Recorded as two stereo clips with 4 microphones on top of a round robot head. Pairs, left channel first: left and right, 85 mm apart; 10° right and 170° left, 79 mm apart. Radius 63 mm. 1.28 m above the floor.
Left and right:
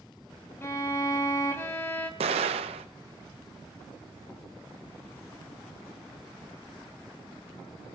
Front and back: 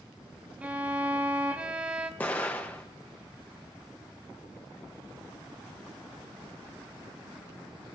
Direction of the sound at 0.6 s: 115° left.